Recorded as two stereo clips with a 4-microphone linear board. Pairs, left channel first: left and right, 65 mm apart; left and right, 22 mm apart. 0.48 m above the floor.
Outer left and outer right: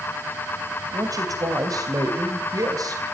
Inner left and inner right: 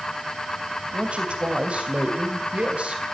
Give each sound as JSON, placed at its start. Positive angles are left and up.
{"t": 0.9, "sound": "a man speaking", "side_deg": -65, "distance_m": 3.0}